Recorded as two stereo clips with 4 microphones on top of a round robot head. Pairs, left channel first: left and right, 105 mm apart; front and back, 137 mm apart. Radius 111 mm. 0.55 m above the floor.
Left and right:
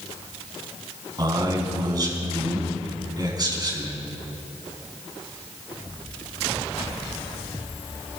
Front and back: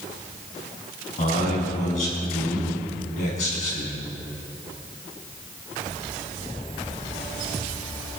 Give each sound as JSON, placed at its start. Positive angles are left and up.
{"t": 1.2, "sound": "a man speaking", "azimuth_deg": -40, "distance_m": 5.0}